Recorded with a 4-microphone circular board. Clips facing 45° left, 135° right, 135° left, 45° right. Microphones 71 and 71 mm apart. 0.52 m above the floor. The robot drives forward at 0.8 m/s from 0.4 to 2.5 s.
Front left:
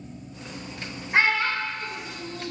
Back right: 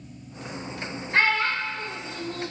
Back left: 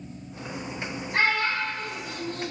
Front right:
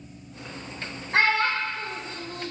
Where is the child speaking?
30° right, 0.9 m; by 2.5 s 130° right, 0.6 m.